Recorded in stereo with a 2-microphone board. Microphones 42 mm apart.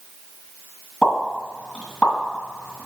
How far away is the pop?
About 3 m.